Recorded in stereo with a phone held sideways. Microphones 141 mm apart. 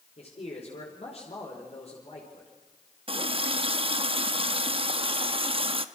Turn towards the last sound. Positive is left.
turn(degrees=-40)  # may be behind; listen again after turning